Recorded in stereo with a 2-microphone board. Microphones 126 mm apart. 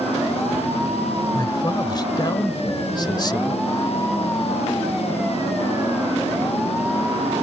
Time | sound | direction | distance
1.3 | a man speaking | 35° left (ahead or behind) | ?